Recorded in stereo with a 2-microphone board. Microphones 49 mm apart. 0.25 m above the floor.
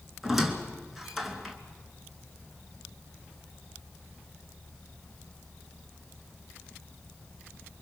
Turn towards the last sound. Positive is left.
turn(degrees=-5)  # may be behind; listen again after turning